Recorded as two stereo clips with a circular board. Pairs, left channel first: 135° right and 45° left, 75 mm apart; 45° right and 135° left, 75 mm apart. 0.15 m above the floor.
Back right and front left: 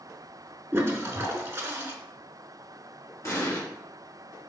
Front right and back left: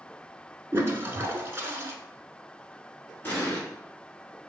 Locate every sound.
0.7 s a toilet flushing: 90° left, 0.6 m
3.2 s an explosion: 100° right, 1.3 m